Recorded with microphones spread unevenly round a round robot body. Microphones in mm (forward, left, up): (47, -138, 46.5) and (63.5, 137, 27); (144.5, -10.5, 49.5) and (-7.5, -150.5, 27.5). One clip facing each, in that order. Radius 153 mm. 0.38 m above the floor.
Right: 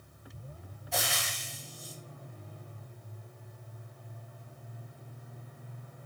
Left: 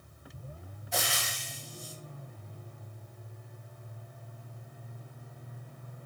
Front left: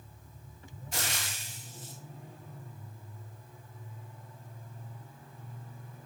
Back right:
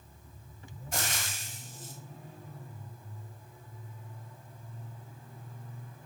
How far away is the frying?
About 1.1 m.